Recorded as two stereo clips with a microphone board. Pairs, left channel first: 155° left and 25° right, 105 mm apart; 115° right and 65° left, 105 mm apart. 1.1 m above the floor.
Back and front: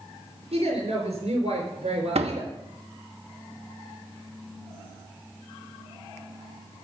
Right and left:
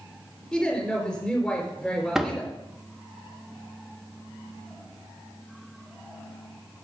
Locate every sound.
0.5 s a woman speaking: 30° right, 4 m
2.1 s a door slam: 20° right, 0.9 m